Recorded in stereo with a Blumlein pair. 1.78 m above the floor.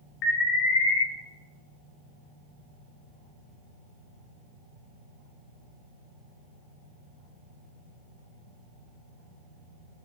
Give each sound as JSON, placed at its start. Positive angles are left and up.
{"t": 0.2, "sound": "an alarm", "azimuth_deg": 30, "distance_m": 0.8}